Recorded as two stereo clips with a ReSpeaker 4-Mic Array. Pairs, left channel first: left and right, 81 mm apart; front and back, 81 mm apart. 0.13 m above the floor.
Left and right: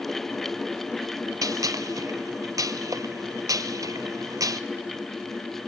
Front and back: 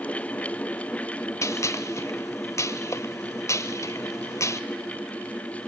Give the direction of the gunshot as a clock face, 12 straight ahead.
2 o'clock.